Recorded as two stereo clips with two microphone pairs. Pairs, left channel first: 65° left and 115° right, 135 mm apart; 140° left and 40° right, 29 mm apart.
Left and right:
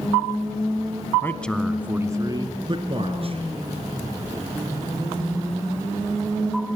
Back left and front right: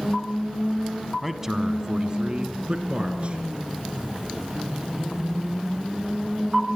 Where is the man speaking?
40° left, 1.0 m; by 3.4 s 80° right, 2 m.